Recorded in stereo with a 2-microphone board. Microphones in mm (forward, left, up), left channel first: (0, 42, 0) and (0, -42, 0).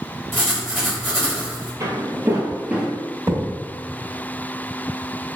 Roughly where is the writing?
Centre.